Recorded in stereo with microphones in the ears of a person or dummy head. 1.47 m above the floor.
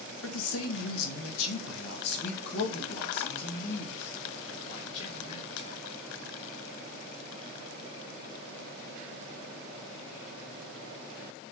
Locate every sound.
0.2 s a man speaking: 85° left, 1.6 m; by 5.8 s 40° left (ahead or behind), 4 m